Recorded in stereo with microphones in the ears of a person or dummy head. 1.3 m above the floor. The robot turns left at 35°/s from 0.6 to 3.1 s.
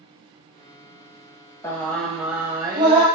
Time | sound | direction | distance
1.6 | singing | 20° left | 0.7 m